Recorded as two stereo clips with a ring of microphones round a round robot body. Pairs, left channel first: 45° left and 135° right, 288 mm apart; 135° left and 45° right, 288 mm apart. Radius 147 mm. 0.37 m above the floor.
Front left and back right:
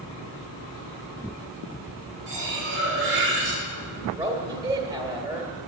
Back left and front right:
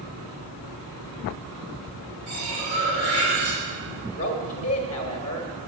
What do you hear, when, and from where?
2.3 s cutlery clinking: 85° right, 4.5 m
4.1 s a man speaking: 160° left, 1.1 m